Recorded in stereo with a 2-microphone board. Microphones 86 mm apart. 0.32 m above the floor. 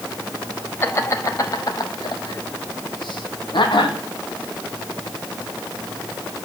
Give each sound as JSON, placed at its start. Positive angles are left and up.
{"t": 0.8, "sound": "laughter", "side_deg": 30, "distance_m": 1.8}